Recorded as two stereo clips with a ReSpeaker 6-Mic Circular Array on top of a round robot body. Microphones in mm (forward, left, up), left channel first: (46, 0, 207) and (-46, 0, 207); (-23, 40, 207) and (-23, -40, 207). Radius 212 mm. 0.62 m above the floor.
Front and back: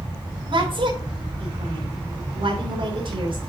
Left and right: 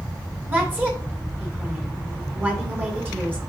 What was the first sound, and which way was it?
A woman speaking, 155° right.